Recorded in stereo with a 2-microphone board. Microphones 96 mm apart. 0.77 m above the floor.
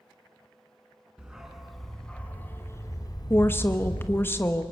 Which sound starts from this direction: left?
A woman speaking, at 3.3 s.